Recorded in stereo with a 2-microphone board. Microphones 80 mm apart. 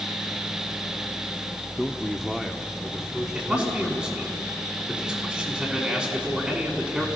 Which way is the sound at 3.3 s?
15° right (ahead or behind).